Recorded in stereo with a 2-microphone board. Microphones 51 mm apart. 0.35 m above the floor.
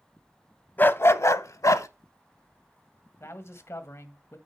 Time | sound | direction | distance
0.8 | a dog barking | 35° left (ahead or behind) | 0.6 m
3.2 | a man speaking | 55° left (ahead or behind) | 1.4 m